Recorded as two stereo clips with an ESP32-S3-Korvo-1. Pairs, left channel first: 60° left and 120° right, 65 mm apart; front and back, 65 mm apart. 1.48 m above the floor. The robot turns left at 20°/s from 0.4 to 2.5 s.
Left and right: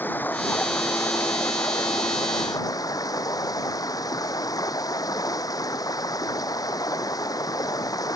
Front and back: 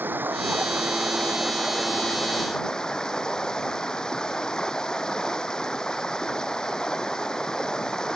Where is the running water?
120° left; by 8.2 s 80° left.